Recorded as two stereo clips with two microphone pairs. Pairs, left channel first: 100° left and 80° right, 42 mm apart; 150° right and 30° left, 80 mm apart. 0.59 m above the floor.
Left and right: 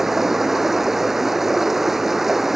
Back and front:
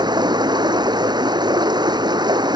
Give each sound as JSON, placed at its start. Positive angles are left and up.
{"t": 0.0, "sound": "running water", "azimuth_deg": 0}